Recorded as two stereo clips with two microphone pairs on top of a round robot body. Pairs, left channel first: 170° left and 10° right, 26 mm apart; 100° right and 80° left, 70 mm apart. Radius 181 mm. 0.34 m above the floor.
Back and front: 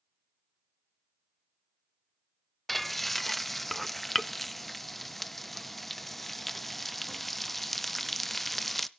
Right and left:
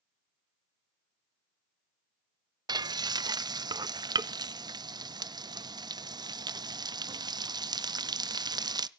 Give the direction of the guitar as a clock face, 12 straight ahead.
No guitar in this recording.